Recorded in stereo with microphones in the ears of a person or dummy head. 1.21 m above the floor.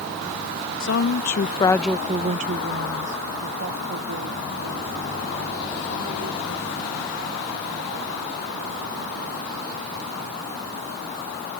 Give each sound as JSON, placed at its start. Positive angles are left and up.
{"t": 0.8, "sound": "a woman speaking", "side_deg": 65}